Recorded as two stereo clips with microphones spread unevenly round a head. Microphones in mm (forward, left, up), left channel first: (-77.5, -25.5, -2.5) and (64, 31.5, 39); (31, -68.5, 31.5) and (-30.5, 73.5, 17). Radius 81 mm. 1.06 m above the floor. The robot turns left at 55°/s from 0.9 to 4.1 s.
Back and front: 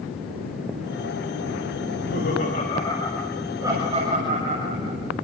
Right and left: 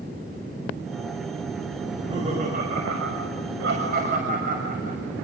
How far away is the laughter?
About 6 m.